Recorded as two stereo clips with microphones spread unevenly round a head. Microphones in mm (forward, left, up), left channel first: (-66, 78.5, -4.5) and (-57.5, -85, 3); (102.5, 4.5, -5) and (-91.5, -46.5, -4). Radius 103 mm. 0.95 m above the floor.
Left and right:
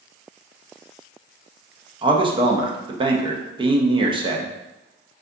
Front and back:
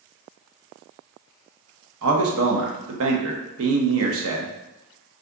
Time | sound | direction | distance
2.0 | a man speaking | 150° right | 0.7 m